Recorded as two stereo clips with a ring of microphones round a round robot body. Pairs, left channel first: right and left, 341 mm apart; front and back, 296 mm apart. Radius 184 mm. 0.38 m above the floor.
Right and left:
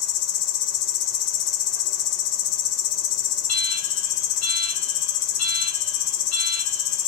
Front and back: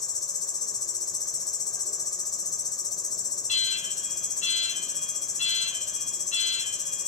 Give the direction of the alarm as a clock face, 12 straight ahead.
2 o'clock.